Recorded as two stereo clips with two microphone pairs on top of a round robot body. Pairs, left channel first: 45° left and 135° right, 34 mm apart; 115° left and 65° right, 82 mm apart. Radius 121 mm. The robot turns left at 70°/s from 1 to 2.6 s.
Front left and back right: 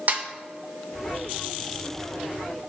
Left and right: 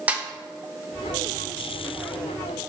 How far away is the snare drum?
About 1.2 m.